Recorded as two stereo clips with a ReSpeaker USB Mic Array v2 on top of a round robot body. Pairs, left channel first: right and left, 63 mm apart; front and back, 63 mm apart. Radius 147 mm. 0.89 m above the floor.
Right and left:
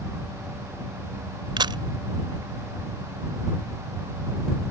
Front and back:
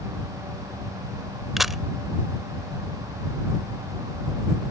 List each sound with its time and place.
1.6 s a camera shutter: 90° left